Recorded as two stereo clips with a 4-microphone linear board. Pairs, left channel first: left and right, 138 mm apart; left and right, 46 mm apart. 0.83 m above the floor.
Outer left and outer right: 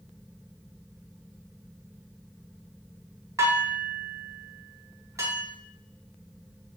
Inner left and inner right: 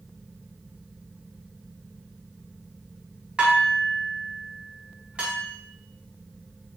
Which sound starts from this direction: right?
Dishes clattering, at 3.4 s.